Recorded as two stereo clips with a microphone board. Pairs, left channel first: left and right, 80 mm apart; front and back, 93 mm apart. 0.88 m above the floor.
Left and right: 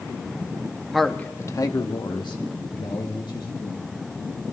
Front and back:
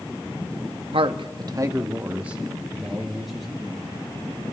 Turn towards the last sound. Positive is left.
turn(degrees=85)